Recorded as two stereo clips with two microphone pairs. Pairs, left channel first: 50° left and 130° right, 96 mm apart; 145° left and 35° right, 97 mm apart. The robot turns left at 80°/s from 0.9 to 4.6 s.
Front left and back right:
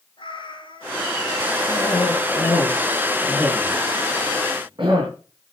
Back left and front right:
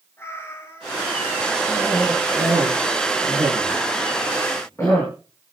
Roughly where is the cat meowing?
Left.